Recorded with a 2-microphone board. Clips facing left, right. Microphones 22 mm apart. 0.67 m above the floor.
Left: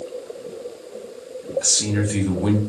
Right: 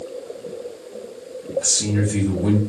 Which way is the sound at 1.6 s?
40° left (ahead or behind).